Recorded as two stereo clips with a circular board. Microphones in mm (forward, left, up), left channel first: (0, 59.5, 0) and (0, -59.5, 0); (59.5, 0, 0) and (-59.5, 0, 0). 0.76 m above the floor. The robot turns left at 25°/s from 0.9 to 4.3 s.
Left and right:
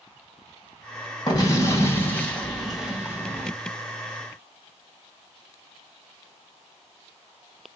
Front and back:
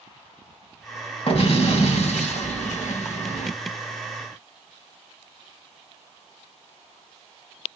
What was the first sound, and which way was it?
An explosion, 35° left.